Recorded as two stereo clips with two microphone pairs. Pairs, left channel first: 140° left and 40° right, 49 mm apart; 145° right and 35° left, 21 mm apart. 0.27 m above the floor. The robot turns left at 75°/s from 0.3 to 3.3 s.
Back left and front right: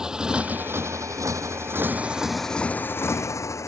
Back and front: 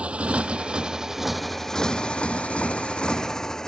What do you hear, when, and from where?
0.0 s a motorcycle: 35° left; by 3.7 s 155° left